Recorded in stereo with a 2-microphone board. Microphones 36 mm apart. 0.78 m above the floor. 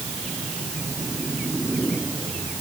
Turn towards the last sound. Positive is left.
No sound to turn to.